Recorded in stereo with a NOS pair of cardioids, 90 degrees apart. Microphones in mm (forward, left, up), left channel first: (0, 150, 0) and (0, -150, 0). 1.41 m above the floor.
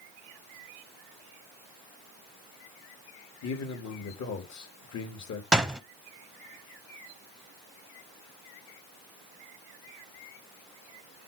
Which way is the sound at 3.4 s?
60° left.